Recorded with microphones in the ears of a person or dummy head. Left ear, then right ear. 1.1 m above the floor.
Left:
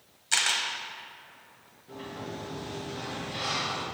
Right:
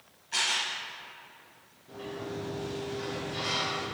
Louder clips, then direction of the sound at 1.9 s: Right 1 dB; 25° left (ahead or behind).